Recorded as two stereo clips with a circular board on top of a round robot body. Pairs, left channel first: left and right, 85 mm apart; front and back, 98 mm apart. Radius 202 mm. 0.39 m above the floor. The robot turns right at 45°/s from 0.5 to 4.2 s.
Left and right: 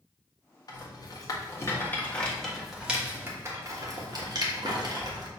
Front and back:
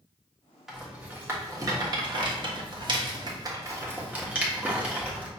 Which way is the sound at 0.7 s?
95° left.